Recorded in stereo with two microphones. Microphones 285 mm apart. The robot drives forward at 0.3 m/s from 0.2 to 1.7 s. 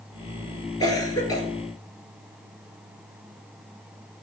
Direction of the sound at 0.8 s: 15° left (ahead or behind).